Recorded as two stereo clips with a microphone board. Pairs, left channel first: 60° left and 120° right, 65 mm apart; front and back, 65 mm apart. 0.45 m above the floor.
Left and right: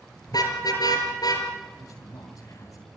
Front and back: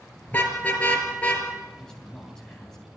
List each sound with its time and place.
0.3 s a car horn: 65° left, 5 m; by 1.5 s 70° left, 5 m
1.8 s a man speaking: 80° left, 3 m